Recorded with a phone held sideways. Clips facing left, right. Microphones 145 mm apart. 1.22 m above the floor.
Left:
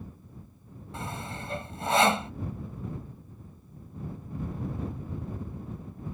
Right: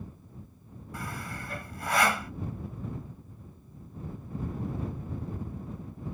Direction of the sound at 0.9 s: 25° left (ahead or behind).